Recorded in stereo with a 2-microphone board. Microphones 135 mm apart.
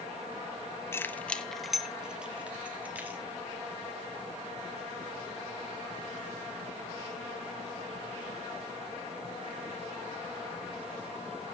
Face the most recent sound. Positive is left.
turn(degrees=-10)  # may be behind; listen again after turning